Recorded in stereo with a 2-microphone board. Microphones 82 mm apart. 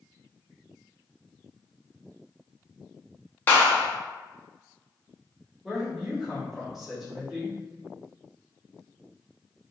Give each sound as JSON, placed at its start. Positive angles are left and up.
{"t": 3.5, "sound": "a clap", "side_deg": 20, "distance_m": 0.9}
{"t": 5.6, "sound": "a woman speaking", "side_deg": -5, "distance_m": 1.8}